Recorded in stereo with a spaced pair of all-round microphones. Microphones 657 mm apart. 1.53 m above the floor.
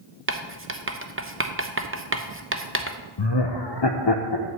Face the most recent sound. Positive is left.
turn(degrees=40)  # may be behind; listen again after turning